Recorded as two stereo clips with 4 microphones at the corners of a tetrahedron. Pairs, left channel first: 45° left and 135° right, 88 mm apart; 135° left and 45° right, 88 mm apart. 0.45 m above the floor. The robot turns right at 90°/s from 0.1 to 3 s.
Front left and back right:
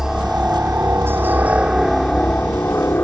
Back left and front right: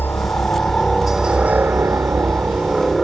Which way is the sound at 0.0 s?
145° left.